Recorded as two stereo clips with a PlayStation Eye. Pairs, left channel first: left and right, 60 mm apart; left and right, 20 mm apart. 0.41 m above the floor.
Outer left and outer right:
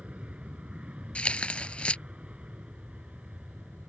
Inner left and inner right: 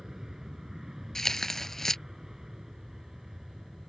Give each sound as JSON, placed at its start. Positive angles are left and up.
{"t": 0.0, "sound": "an aircraft", "side_deg": -20}
{"t": 1.1, "sound": "tearing paper", "side_deg": 20}